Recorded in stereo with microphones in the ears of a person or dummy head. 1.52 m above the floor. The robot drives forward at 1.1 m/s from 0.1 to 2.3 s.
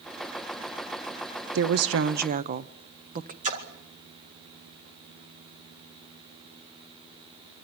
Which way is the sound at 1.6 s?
65° right (ahead or behind).